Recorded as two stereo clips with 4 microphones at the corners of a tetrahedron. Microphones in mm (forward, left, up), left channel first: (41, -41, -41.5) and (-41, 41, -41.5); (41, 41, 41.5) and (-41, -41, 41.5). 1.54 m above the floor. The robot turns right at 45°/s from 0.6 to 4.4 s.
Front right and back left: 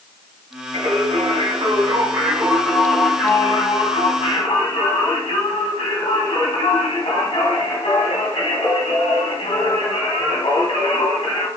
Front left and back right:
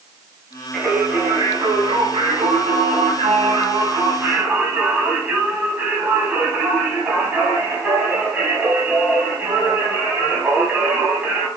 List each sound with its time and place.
0.7 s singing: 135° left, 3 m; by 11.5 s 60° right, 3 m